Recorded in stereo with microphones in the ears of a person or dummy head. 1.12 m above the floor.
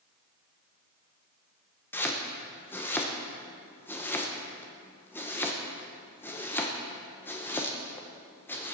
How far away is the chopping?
About 1.0 m.